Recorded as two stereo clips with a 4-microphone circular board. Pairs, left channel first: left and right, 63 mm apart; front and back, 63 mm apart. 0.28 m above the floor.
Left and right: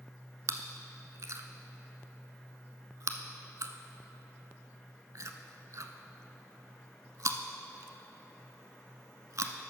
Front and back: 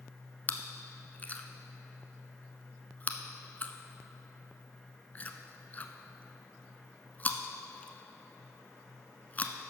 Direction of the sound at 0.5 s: 60° right.